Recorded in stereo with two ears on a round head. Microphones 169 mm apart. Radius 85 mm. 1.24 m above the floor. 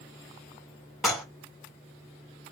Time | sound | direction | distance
1.0 | dishes clattering | centre (ahead or behind) | 1.9 m